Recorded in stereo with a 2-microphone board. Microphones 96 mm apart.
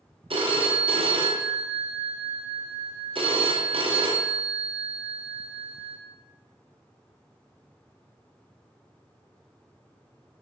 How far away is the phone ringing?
About 0.5 m.